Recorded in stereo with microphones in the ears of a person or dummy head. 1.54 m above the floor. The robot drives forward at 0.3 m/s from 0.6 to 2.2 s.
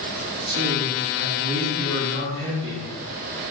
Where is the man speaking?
60° right (ahead or behind), 1.4 m; by 2.9 s 75° right (ahead or behind), 1.3 m.